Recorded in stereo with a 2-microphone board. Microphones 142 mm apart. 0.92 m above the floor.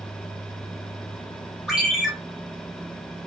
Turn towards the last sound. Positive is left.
turn(degrees=-5)  # may be behind; listen again after turning